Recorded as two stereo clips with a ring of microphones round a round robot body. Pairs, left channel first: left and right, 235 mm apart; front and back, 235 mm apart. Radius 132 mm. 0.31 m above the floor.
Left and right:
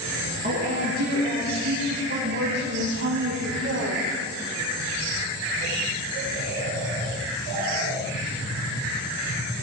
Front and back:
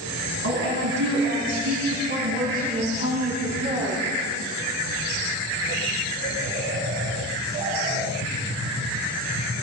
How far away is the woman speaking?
About 4 m.